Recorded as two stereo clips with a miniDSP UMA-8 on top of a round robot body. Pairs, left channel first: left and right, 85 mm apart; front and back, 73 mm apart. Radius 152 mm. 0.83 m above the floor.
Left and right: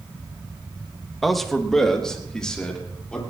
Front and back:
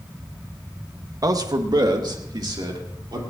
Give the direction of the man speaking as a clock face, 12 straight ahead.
6 o'clock.